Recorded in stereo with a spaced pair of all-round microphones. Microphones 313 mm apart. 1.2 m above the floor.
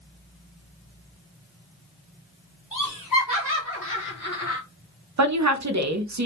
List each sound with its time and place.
2.7 s laughter: 80° left, 1.4 m; by 4.6 s 50° left (ahead or behind), 0.5 m
5.2 s a woman speaking: 60° right (ahead or behind), 0.5 m